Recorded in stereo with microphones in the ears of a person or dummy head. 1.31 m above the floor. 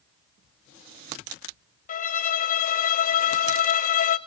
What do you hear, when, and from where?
1.9 s a violin: 40° left (ahead or behind), 0.7 m